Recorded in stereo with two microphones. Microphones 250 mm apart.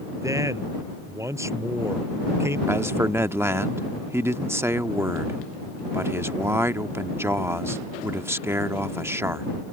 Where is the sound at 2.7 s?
10° right (ahead or behind).